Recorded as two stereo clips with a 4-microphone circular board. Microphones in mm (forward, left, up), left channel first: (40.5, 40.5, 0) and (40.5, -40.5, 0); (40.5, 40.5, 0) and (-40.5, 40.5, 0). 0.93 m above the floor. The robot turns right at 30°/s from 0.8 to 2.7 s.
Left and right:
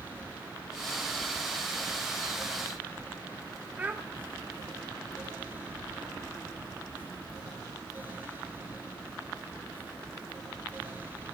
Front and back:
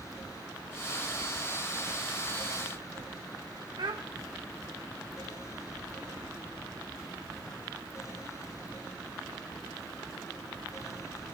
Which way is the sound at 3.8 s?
160° right.